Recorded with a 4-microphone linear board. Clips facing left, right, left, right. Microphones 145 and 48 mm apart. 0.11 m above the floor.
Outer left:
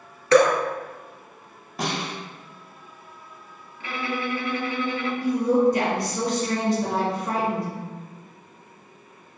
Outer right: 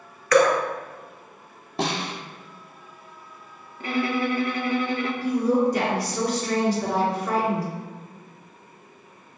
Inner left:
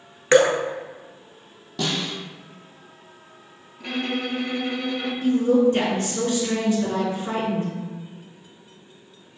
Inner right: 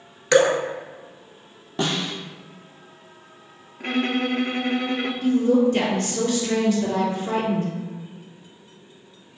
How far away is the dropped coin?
No dropped coin in this recording.